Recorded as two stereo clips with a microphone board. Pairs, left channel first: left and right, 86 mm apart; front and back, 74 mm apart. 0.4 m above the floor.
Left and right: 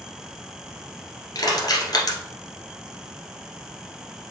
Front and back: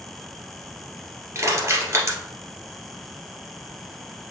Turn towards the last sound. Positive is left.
turn(degrees=130)